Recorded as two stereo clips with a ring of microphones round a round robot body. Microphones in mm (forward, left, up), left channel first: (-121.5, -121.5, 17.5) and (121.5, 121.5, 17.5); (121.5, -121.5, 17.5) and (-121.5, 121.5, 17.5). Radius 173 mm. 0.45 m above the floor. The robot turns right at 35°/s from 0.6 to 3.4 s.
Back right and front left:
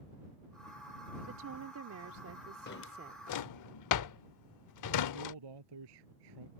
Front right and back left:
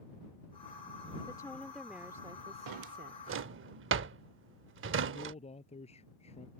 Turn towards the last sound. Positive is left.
turn(degrees=30)